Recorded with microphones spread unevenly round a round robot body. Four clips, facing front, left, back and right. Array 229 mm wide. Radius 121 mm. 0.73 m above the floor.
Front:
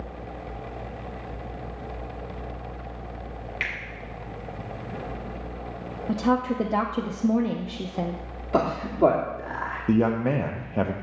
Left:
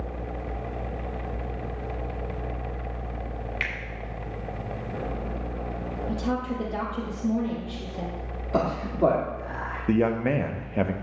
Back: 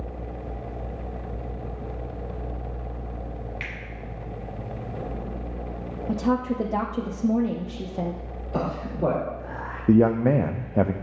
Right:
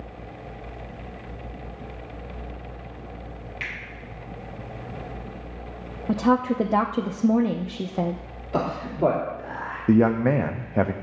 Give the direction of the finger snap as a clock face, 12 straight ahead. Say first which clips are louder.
Left 1 dB, front 4 dB; 10 o'clock.